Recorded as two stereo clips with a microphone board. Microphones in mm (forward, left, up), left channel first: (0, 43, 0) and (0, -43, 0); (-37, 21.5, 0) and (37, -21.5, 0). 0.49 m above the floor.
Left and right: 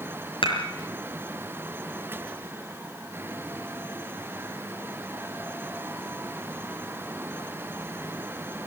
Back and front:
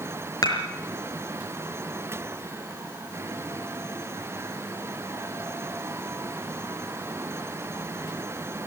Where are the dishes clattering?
105° left, 5.5 m.